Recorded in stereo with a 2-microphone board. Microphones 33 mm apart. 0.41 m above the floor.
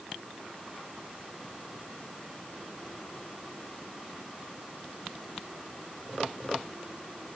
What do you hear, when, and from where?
Only background noise.